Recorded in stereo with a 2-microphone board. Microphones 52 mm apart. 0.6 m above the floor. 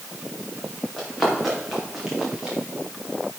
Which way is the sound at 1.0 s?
5° left (ahead or behind).